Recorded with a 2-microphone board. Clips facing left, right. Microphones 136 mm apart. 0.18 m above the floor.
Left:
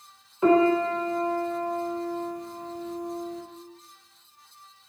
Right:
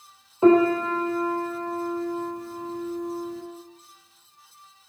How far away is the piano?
About 1.2 m.